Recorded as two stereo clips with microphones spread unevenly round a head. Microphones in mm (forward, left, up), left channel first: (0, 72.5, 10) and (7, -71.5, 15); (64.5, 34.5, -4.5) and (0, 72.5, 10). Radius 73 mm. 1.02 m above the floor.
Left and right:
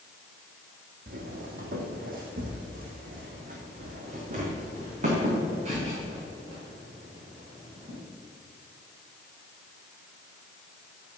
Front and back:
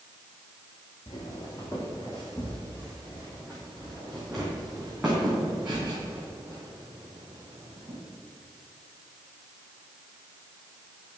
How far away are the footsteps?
About 1.8 m.